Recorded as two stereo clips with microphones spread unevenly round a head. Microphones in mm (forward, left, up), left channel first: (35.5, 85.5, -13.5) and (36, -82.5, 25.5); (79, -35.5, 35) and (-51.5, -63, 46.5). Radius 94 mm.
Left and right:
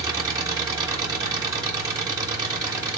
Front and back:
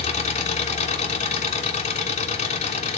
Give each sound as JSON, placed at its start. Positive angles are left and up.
{"t": 0.0, "sound": "an engine running", "azimuth_deg": -20, "distance_m": 1.6}